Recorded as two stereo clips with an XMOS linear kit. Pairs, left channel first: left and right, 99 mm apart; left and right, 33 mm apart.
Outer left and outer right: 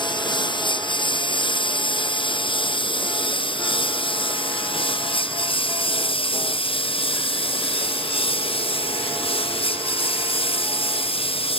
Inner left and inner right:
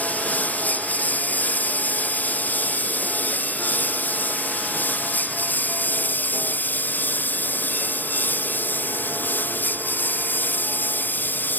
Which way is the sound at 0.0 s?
55° left (ahead or behind).